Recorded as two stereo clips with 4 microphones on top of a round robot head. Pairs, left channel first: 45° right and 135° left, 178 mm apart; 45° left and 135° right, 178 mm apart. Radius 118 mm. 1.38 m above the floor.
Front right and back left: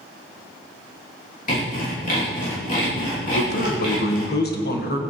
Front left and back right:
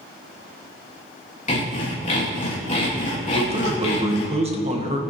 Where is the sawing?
Straight ahead, 3 m.